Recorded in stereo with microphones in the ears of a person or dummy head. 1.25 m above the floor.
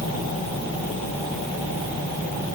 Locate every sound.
Only background noise.